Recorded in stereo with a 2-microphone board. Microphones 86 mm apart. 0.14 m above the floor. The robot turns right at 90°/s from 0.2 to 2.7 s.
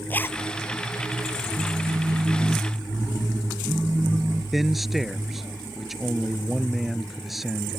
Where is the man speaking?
Centre (ahead or behind).